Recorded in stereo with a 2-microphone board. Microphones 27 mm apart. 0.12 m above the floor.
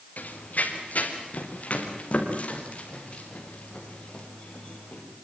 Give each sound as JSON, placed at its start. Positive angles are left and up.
{"t": 0.2, "sound": "running footsteps", "side_deg": 70, "distance_m": 5.0}